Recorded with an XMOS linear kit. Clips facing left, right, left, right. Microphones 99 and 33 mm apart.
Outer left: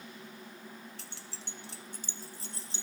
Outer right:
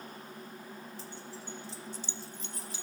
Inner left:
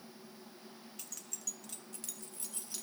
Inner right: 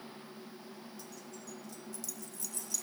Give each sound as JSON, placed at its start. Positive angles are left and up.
{"t": 1.0, "sound": "keys jangling", "side_deg": 70, "distance_m": 0.5}